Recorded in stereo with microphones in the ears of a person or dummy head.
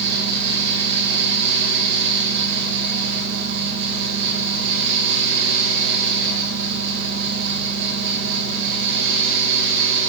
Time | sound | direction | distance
0.0 | a fan | 70° right (ahead or behind) | 2.5 m